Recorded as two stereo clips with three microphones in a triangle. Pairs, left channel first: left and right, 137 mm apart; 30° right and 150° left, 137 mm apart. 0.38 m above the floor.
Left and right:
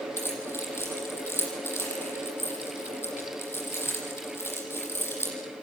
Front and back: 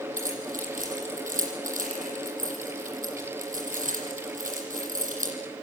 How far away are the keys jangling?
About 7.5 m.